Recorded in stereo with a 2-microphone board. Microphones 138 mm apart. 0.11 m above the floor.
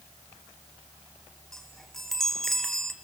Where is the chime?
5° left (ahead or behind), 1.9 m.